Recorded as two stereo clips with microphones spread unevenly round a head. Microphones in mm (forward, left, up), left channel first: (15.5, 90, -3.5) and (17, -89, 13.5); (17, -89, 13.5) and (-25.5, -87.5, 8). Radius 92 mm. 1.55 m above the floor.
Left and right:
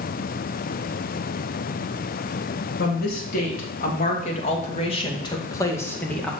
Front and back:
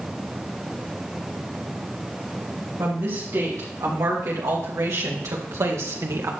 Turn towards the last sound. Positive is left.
turn(degrees=180)